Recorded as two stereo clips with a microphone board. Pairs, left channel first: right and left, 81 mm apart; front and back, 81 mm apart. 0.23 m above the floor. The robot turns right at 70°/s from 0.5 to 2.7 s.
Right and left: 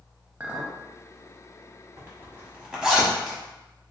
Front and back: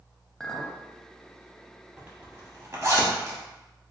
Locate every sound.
0.4 s a clink: 70° left, 0.6 m; by 0.8 s 90° left, 0.6 m
2.0 s a zipper: 115° left, 1.2 m; by 3.4 s 165° left, 1.2 m